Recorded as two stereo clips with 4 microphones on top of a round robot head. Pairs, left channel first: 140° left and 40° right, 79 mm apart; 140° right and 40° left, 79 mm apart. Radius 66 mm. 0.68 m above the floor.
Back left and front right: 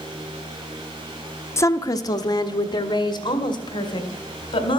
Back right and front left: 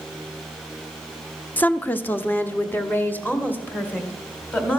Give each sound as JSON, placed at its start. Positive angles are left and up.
{"t": 1.6, "sound": "a woman speaking", "azimuth_deg": 160, "distance_m": 0.5}